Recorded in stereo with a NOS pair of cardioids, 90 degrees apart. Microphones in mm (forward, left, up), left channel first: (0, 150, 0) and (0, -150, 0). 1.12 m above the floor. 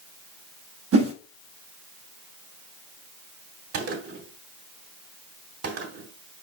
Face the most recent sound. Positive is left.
turn(degrees=-50)